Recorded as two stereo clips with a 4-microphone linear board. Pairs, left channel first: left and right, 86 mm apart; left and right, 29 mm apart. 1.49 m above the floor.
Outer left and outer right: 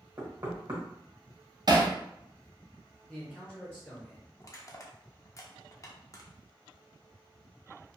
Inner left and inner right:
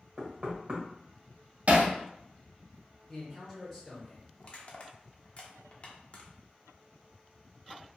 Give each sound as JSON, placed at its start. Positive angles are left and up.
{"t": 0.2, "sound": "knocking", "side_deg": -45, "distance_m": 1.2}
{"t": 1.7, "sound": "hammering", "side_deg": -45, "distance_m": 0.5}
{"t": 3.1, "sound": "a man speaking", "side_deg": 10, "distance_m": 0.7}
{"t": 4.4, "sound": "crushing", "side_deg": 35, "distance_m": 0.6}